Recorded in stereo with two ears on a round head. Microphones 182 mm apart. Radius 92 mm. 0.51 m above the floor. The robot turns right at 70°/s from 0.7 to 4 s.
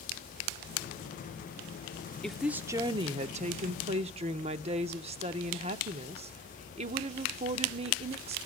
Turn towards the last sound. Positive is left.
turn(degrees=-65)